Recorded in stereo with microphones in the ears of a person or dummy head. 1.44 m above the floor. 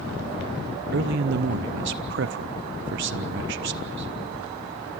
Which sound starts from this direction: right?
A man speaking, at 0.9 s.